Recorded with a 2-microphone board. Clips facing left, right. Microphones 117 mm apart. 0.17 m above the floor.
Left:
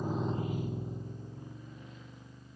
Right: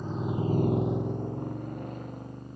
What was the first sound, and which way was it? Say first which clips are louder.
A motorcycle: right 3 dB; 10° left (ahead or behind).